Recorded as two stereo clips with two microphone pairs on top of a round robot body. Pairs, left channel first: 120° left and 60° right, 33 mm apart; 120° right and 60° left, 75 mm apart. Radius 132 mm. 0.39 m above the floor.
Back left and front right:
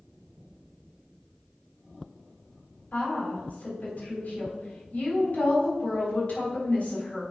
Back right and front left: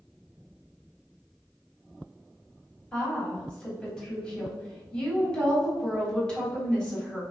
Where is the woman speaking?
160° left, 3.5 m.